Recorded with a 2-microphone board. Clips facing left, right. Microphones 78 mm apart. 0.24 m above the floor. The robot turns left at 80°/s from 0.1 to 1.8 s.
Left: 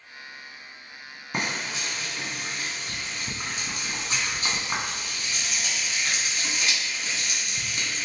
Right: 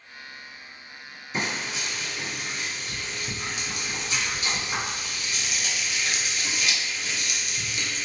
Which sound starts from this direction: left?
Frying, at 1.3 s.